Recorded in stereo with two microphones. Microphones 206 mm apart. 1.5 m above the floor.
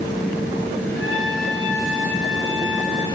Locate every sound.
0.9 s a trumpet: 75° left (ahead or behind), 9.5 m